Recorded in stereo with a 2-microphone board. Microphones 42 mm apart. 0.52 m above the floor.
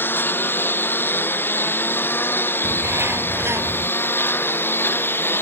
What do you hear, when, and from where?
0.0 s a lawn mower: 55° left (ahead or behind); by 5.4 s 60° left (ahead or behind)
2.6 s a bird: 80° right